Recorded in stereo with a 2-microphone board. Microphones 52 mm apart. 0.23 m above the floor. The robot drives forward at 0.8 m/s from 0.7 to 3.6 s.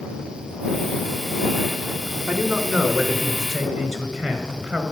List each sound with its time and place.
2.3 s a man speaking: 10° right (ahead or behind), 1.6 m; by 4.8 s 5° right (ahead or behind), 2.5 m